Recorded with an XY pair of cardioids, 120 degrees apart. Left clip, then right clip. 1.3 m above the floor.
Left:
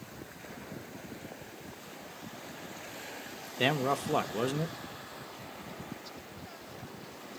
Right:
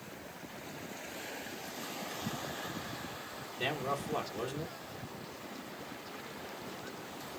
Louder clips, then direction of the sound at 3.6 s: Left 6 dB; 55° left.